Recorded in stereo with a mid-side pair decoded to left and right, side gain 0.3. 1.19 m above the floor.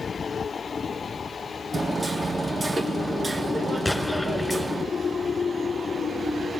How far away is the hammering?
About 2 m.